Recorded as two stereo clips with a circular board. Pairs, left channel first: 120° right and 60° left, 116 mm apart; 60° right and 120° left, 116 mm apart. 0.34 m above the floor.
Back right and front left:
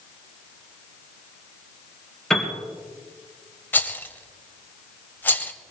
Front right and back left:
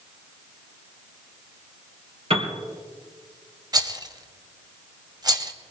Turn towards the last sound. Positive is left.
turn(degrees=170)